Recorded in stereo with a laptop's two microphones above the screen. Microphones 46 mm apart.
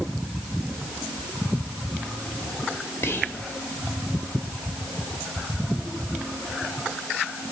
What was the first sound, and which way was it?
Whispering, 60° left (ahead or behind).